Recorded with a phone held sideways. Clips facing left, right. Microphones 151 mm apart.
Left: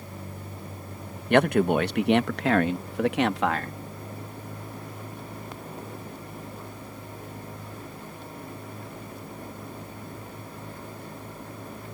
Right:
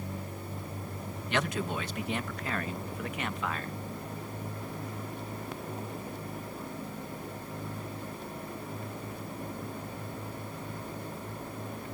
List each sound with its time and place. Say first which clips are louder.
1.3 s a man speaking: left 12 dB; 55° left (ahead or behind); by 3.8 s 80° left